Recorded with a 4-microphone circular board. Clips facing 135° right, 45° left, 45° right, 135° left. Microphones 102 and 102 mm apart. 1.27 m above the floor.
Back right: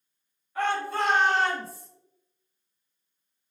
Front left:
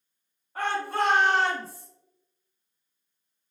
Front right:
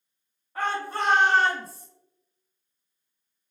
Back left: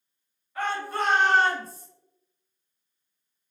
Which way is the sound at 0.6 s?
Straight ahead.